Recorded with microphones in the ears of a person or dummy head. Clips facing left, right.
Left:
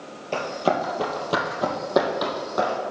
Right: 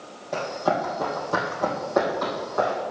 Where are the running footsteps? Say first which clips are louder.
Left 1 dB; 45° left (ahead or behind), 2 m; by 2.8 s 50° left (ahead or behind), 3.5 m.